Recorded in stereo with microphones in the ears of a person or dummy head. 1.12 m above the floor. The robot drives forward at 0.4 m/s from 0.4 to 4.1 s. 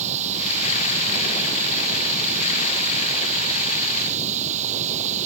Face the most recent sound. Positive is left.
turn(degrees=-40)  # may be behind; listen again after turning